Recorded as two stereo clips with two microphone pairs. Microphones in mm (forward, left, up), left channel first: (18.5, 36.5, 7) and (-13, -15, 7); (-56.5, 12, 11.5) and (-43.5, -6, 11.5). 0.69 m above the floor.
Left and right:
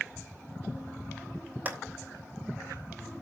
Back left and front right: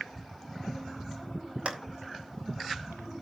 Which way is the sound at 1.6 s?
65° right.